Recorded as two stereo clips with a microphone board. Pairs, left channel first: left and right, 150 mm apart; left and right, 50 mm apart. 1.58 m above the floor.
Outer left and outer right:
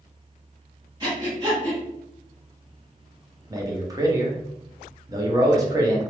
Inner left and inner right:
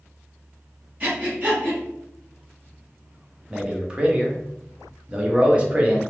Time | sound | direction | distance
1.0 | breathing | 30° right (ahead or behind) | 1.6 m
3.5 | a man speaking | 25° right (ahead or behind) | 0.7 m